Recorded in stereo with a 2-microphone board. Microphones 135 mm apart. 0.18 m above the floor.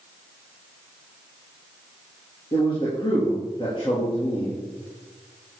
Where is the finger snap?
I don't hear a finger snap.